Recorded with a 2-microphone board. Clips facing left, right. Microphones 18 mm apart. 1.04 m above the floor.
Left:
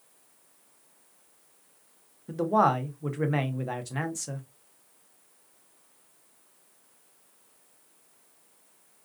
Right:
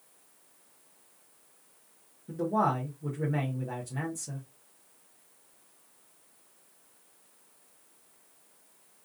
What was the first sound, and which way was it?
A man speaking, 60° left (ahead or behind).